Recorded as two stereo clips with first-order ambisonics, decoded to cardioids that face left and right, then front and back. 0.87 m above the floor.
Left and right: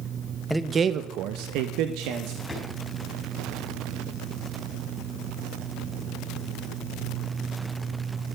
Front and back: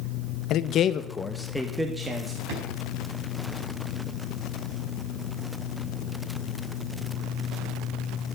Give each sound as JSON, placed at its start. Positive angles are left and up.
{"t": 0.5, "sound": "a man speaking", "azimuth_deg": 0, "distance_m": 0.6}
{"t": 2.5, "sound": "a drawer", "azimuth_deg": 170, "distance_m": 4.5}